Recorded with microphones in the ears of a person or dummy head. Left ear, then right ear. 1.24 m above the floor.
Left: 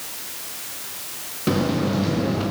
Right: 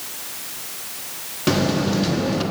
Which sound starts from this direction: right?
A buzzer, at 1.5 s.